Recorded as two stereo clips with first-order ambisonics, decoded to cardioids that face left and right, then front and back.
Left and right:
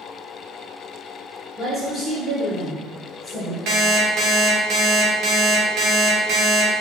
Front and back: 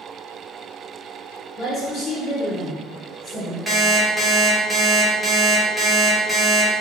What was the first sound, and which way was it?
A woman speaking, 10° right.